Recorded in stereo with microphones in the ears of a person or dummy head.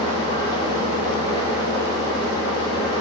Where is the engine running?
20° left (ahead or behind), 7 m.